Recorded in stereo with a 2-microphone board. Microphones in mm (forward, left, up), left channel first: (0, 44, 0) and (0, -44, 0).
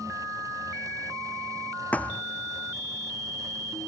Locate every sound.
1.9 s a thud: 15° left (ahead or behind)